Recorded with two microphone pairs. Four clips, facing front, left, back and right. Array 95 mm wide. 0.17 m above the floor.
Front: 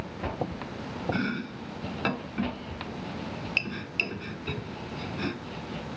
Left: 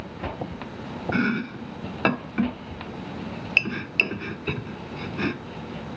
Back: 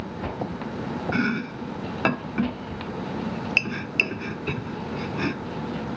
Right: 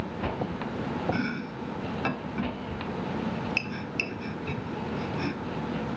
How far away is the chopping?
About 0.6 m.